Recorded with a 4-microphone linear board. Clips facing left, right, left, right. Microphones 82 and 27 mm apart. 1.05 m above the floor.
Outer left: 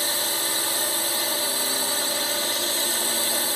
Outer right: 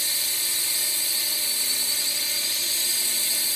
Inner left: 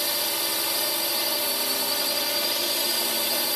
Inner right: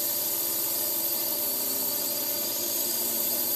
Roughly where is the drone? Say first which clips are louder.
Outer left 9 dB, inner left 8 dB; left.